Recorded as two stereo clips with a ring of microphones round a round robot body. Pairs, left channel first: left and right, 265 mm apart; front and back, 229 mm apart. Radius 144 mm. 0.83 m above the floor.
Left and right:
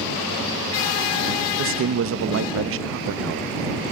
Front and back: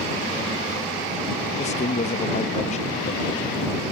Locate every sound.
1.6 s a man speaking: 60° right